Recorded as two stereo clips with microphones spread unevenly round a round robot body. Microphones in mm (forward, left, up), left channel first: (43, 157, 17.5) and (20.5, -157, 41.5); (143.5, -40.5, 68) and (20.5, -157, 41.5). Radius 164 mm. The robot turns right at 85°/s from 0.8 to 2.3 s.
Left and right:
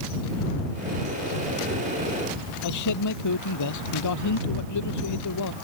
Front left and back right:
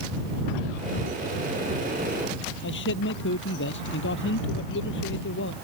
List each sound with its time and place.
2.6 s a man speaking: 55° left